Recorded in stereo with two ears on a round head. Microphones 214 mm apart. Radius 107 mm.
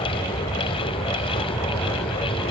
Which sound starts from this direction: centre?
An aircraft, at 0.0 s.